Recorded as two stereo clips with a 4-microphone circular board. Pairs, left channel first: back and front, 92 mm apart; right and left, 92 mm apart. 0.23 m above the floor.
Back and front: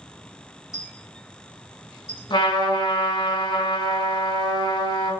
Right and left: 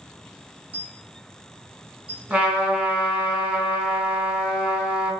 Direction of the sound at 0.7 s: 85° left.